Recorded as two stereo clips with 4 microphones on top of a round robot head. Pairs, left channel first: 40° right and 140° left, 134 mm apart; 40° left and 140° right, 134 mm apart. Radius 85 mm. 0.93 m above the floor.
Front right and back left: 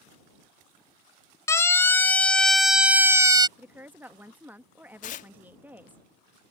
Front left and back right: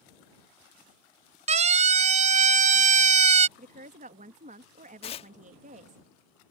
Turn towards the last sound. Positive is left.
turn(degrees=-10)